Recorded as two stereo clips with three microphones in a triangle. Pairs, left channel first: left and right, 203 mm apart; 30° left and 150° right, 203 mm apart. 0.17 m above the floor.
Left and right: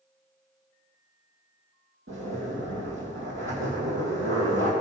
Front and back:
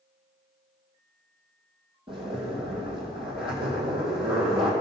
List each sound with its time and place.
2.1 s a zipper: 85° right, 2.5 m